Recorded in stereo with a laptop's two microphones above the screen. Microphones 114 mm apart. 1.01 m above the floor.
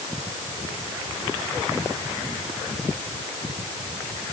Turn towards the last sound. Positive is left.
No sound to turn to.